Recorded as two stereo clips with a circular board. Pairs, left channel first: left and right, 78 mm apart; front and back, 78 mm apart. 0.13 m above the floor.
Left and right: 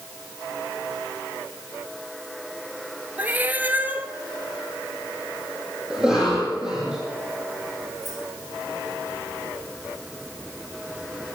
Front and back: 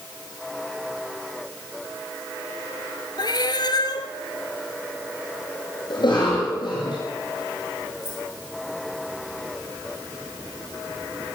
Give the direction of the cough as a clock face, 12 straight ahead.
12 o'clock.